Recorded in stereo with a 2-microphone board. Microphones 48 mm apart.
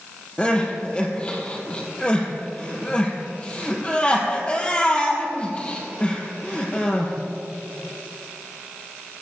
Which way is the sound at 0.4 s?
25° left (ahead or behind).